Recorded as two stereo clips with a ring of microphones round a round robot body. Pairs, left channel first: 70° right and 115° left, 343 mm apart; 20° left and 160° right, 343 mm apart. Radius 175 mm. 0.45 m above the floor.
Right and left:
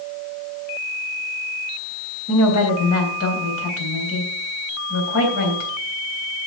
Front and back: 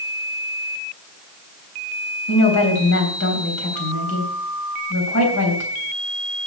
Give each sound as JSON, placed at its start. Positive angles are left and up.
{"t": 2.3, "sound": "a woman speaking", "azimuth_deg": -20, "distance_m": 3.5}